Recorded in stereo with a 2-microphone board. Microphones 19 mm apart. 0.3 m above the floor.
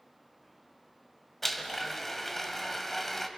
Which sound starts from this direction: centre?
A blender, at 1.4 s.